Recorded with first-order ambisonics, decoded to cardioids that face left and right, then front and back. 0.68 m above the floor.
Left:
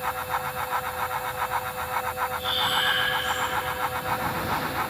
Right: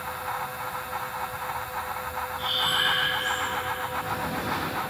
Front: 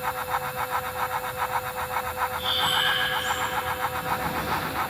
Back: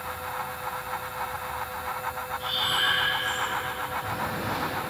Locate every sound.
2.4 s breathing: straight ahead, 4 m